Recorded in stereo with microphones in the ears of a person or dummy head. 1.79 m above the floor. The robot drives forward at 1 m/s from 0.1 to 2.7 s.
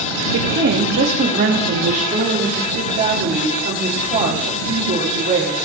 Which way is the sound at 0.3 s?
65° right (ahead or behind).